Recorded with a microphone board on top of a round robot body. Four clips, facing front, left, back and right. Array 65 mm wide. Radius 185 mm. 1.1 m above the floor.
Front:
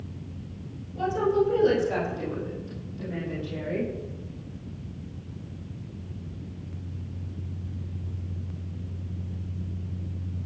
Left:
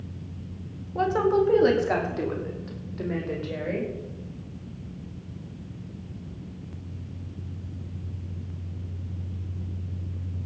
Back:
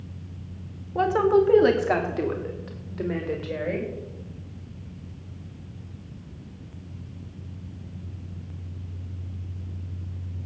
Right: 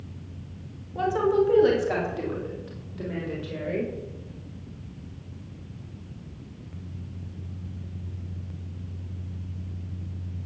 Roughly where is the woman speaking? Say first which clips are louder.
Even, back 4 dB; behind.